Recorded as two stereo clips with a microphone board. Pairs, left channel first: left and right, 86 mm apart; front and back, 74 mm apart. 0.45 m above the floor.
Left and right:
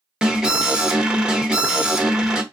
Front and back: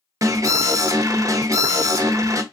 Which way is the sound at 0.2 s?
170° right.